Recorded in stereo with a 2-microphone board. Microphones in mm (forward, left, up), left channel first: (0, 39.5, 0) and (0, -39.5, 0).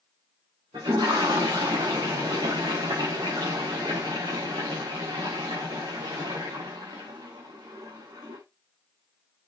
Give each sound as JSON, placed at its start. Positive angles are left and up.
{"t": 0.7, "sound": "a toilet flushing", "side_deg": -75, "distance_m": 6.0}